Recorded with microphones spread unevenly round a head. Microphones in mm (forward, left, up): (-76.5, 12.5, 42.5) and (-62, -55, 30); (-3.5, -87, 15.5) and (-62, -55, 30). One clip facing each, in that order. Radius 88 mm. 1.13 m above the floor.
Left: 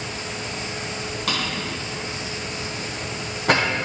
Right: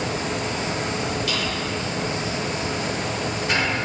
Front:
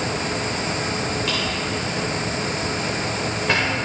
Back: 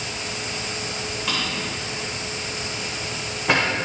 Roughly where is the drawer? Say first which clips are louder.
Right 1 dB, front 3 dB; left.